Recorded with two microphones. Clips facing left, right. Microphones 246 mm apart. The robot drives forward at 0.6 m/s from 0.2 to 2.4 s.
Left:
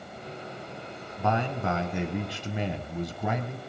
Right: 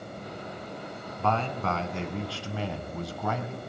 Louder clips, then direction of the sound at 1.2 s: Left 1 dB; 15° left (ahead or behind).